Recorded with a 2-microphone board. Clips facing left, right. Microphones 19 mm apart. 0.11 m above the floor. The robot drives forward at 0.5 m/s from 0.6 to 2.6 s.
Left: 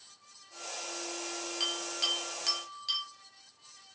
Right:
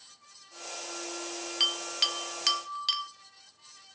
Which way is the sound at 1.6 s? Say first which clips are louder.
Right 5 dB; 40° right (ahead or behind).